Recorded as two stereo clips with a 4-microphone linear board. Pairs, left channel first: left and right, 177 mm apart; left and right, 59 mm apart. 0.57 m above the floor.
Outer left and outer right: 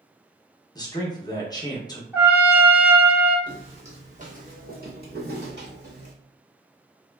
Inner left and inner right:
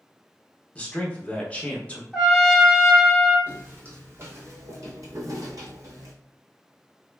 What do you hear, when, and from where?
0.8 s a man speaking: 20° left (ahead or behind), 0.7 m
2.1 s a trumpet: 10° right (ahead or behind), 0.8 m
3.5 s footsteps: 30° right (ahead or behind), 1.3 m; by 6.1 s 65° right (ahead or behind), 1.3 m